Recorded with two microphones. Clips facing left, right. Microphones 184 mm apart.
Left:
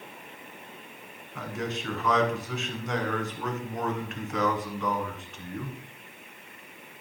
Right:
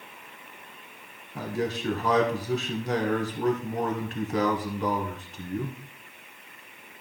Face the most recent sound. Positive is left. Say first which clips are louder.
# right 4 dB
turn(degrees=-35)  # may be behind; listen again after turning